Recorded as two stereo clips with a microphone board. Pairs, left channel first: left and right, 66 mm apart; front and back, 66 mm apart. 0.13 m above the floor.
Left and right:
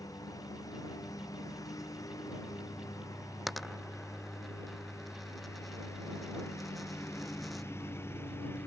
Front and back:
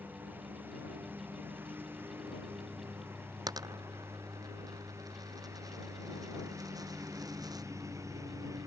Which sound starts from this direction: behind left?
A lawn mower, at 0.0 s.